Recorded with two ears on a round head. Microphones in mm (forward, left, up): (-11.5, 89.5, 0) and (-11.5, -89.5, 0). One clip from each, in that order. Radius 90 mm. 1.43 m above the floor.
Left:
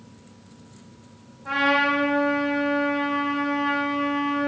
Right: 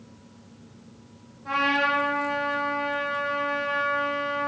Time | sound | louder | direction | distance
1.4 | a trumpet | left 2 dB | 5° left (ahead or behind) | 1.3 m